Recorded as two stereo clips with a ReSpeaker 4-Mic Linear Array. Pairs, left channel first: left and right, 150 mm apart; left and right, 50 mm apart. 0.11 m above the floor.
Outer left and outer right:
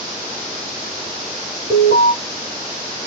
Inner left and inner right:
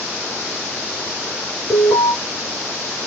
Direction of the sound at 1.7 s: 55° left (ahead or behind).